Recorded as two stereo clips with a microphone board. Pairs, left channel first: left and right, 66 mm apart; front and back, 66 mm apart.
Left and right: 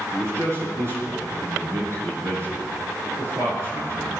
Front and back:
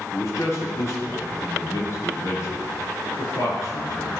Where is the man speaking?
40° right, 7 m.